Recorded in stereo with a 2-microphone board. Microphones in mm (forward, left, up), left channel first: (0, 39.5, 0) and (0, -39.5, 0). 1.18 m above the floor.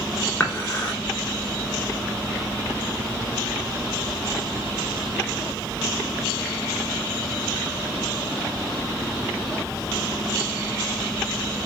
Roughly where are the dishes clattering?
Left.